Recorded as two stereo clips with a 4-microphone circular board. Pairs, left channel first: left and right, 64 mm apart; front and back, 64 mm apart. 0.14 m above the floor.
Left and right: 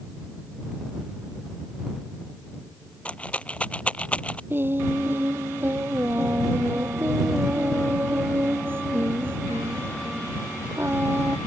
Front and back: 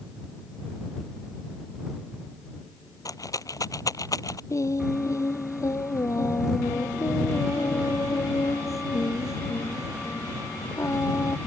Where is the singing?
35° right.